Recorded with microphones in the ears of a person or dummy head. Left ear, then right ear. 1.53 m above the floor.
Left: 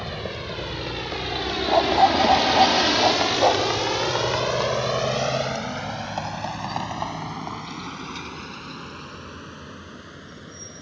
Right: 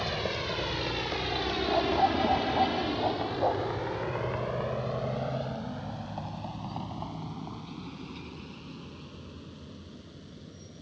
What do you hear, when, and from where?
0.0 s a vehicle: 20° right (ahead or behind); by 10.8 s 55° left (ahead or behind)
1.7 s a dog barking: 70° left (ahead or behind)